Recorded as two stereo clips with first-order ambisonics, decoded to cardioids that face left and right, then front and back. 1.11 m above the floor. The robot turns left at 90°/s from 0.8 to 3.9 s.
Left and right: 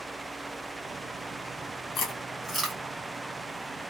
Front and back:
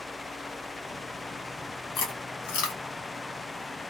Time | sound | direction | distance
1.9 | chewing | 50° left | 1.5 m